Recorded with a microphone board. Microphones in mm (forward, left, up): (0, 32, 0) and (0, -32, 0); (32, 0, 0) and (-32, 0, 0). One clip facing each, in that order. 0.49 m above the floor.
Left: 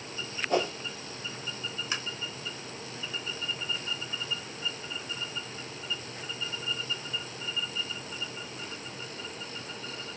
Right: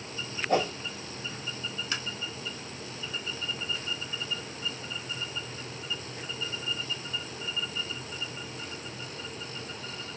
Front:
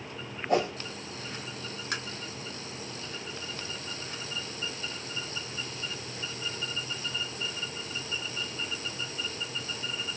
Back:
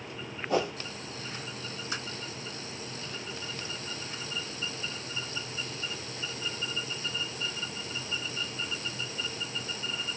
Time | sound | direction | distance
0.5 | a whoosh | 35° right | 2.0 m
1.9 | tapping | 15° left | 1.5 m